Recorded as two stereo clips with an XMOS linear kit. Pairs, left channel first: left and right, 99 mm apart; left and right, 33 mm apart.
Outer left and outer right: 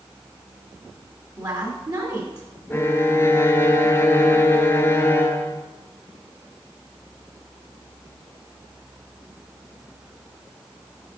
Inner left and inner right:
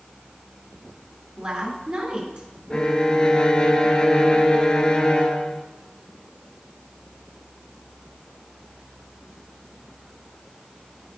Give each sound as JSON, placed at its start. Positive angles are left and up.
{"t": 1.4, "sound": "a woman speaking", "side_deg": -40, "distance_m": 2.0}
{"t": 2.7, "sound": "a violin", "side_deg": 25, "distance_m": 0.5}